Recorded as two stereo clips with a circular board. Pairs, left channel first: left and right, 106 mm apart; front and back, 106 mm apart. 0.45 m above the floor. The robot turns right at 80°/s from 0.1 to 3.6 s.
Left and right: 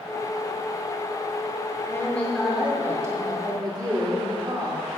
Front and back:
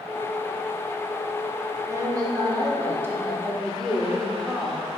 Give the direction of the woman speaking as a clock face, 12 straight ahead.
7 o'clock.